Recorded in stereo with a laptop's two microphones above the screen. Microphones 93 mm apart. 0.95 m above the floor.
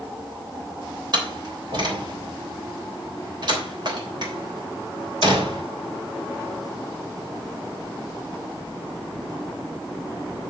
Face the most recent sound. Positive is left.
turn(degrees=-55)  # may be behind; listen again after turning